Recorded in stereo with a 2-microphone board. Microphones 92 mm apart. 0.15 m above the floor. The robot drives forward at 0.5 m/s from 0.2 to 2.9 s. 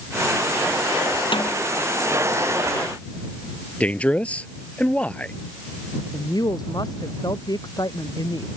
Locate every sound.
1.3 s a snare drum: 65° left (ahead or behind)
3.8 s a man speaking: 15° left (ahead or behind)
6.1 s a woman speaking: 50° left (ahead or behind)